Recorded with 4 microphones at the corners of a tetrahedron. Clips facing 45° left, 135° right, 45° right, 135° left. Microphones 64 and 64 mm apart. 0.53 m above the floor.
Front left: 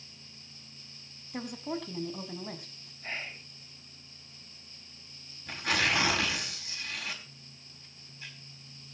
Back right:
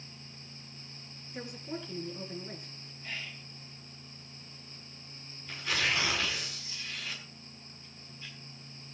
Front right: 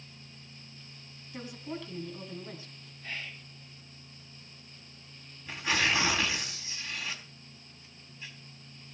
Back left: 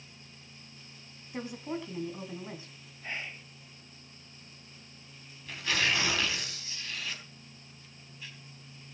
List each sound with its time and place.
1.3 s a woman speaking: 65° left, 3.5 m
3.0 s whispering: 80° left, 0.8 m
5.5 s tearing paper: 20° left, 4 m